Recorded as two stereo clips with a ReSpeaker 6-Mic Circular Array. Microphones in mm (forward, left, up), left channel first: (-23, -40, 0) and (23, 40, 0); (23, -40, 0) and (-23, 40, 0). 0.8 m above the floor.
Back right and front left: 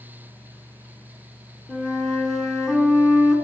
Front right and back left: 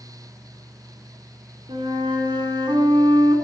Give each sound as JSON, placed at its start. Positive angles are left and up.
{"t": 1.7, "sound": "a flute", "azimuth_deg": 155, "distance_m": 3.0}